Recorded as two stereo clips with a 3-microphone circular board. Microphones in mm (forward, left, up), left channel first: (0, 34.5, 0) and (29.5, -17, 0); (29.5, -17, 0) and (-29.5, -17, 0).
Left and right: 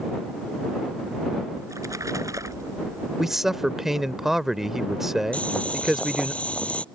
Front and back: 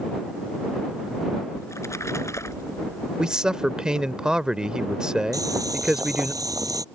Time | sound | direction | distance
1.6 | a splash | 35° right | ?
3.2 | a man speaking | 135° right | ?
5.3 | boiling | 170° right | ?